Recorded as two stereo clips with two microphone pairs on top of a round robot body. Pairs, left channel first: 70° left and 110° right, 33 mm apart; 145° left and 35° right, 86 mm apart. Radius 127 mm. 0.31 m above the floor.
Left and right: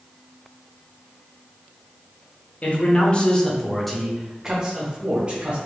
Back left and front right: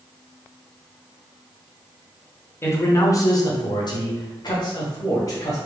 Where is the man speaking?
80° left, 1.3 m; by 5.6 s 170° right, 1.9 m.